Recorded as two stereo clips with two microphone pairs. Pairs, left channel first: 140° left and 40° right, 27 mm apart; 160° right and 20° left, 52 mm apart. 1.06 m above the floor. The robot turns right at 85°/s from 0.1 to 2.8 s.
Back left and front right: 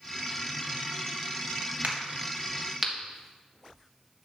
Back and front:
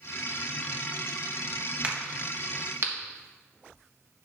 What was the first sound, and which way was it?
A crack, 40° right.